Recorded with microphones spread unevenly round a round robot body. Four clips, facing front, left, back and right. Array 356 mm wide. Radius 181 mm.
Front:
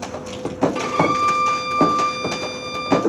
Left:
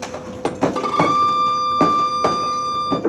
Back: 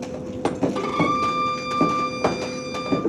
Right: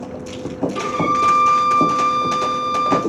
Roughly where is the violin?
Ahead left.